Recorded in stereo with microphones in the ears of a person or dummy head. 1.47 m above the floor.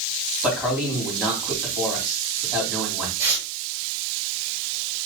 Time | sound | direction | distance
0.4 | a man speaking | 5° right (ahead or behind) | 2.5 m
3.2 | tearing paper | 15° right (ahead or behind) | 2.5 m